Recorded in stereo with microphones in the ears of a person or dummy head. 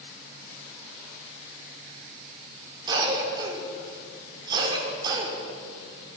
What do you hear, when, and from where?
2.9 s a cough: 25° right (ahead or behind), 5 m